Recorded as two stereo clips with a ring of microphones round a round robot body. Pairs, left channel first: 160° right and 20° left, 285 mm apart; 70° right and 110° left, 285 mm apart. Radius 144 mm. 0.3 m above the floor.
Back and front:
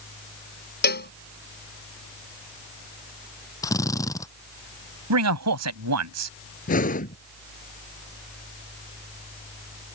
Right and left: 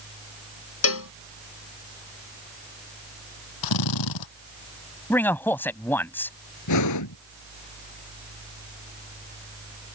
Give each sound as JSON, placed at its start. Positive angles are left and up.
{"t": 0.8, "sound": "a cowbell", "azimuth_deg": -105}
{"t": 3.6, "sound": "a drill", "azimuth_deg": -80}
{"t": 5.1, "sound": "a man speaking", "azimuth_deg": 15}
{"t": 6.7, "sound": "breathing", "azimuth_deg": -95}